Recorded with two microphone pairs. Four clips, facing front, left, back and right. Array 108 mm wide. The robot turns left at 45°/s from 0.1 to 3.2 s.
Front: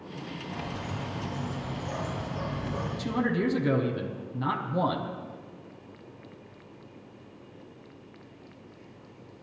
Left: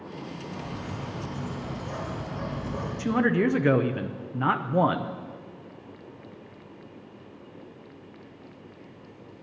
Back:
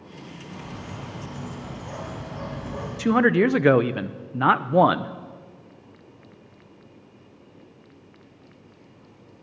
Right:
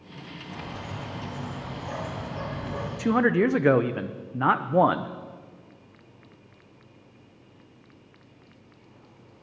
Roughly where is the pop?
No pop in this recording.